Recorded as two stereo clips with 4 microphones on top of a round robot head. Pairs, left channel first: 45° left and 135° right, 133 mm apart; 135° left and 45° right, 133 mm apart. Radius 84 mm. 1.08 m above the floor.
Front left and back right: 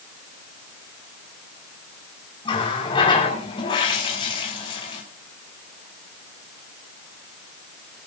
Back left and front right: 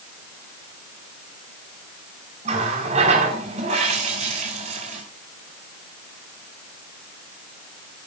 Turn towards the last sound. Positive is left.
turn(degrees=-10)